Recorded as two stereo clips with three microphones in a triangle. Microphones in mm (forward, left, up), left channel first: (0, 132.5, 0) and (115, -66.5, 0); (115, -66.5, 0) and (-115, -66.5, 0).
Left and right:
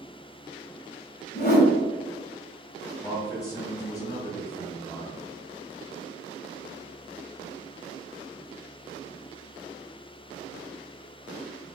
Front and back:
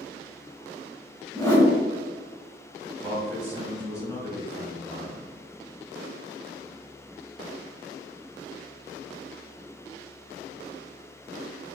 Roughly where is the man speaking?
Ahead left.